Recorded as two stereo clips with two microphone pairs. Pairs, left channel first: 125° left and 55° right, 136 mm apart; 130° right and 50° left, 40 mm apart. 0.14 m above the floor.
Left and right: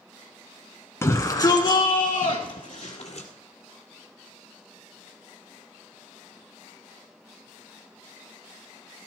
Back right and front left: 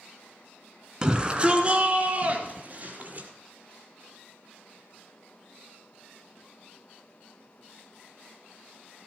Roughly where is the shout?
Left.